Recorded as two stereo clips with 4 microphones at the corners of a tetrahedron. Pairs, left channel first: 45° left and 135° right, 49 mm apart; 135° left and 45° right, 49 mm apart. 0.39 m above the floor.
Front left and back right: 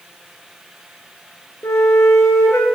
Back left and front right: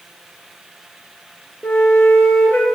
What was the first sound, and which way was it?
A flute, 70° left.